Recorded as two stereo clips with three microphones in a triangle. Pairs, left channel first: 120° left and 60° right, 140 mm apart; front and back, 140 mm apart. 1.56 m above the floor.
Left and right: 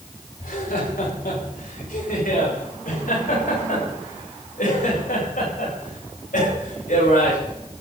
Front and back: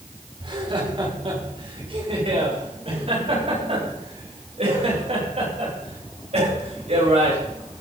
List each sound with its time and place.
0.4 s laughter: 125° left, 6.5 m; by 7.4 s 140° left, 11 m